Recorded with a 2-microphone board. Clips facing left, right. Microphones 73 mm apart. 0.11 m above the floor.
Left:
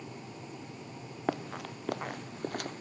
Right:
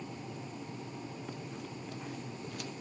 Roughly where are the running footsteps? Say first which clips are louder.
Left 8 dB; left.